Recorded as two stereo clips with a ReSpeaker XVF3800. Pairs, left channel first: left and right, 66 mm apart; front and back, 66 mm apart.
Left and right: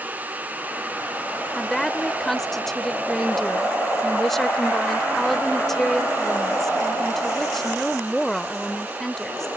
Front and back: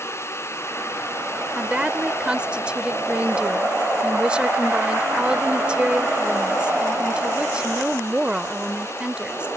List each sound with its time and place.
1.6 s a woman speaking: 160° left